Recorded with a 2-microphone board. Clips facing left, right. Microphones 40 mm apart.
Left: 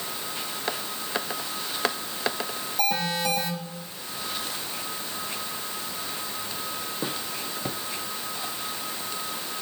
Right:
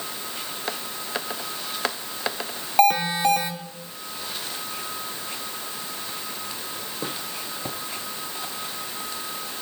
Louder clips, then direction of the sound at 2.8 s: Right 8 dB; 65° right (ahead or behind).